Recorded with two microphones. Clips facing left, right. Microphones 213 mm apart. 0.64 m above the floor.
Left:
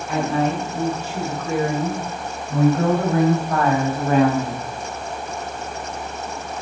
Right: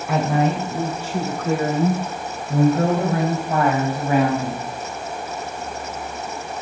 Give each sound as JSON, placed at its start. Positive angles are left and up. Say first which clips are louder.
{"t": 0.1, "sound": "a woman speaking", "louder": "right 1 dB", "side_deg": -75, "distance_m": 3.0}